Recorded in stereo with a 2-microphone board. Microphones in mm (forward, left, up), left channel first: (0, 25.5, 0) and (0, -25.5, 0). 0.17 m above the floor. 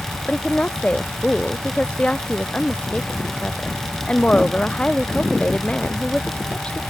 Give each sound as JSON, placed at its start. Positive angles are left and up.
{"t": 0.2, "sound": "a woman speaking", "side_deg": 20}